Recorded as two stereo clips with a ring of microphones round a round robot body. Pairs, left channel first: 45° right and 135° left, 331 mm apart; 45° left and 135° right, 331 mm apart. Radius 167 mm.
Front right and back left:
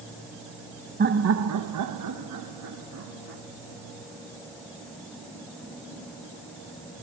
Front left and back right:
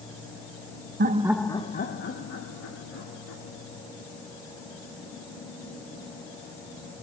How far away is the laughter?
About 0.6 m.